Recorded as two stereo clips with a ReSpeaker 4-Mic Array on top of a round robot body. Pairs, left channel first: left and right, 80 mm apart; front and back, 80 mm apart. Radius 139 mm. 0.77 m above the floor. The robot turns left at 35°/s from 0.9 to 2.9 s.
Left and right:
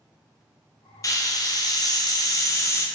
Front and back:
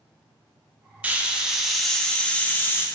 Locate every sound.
1.0 s a hiss: 115° left, 0.8 m; by 2.9 s 50° left, 0.8 m